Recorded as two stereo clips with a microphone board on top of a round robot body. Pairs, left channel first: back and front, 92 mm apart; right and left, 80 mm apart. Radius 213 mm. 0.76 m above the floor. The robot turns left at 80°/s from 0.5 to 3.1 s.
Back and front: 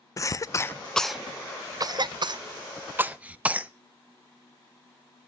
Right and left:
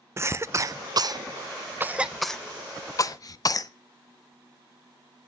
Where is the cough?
140° left, 0.5 m; by 3.7 s 70° right, 0.5 m.